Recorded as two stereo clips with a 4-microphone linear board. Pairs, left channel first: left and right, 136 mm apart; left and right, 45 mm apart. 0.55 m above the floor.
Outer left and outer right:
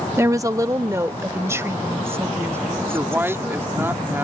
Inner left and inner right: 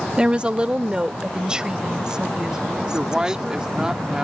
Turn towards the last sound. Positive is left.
turn(degrees=-15)  # may be behind; listen again after turning